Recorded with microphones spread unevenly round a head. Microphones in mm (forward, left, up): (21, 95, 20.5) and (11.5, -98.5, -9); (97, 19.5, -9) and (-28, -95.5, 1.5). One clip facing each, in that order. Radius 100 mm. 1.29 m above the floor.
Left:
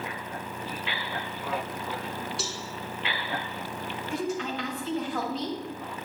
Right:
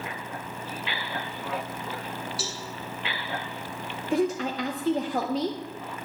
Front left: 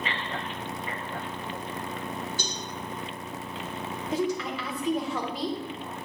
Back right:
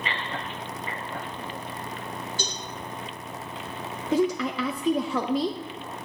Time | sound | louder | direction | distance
2.4 | a cowbell | even, back right 1 dB | 175° left | 1.5 m
4.1 | a woman speaking | right 6 dB, back right 5 dB | 150° right | 0.6 m